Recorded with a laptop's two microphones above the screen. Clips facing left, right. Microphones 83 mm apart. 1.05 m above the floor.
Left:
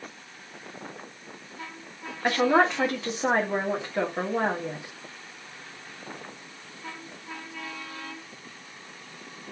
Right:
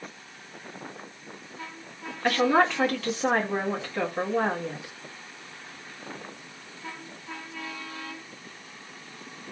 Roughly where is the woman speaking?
Left.